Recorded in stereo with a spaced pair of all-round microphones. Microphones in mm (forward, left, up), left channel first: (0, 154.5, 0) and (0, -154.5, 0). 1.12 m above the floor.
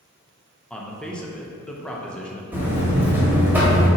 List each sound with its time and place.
0.7 s a man speaking: 5° left (ahead or behind), 0.5 m
2.5 s a buzzer: 5° right (ahead or behind), 1.2 m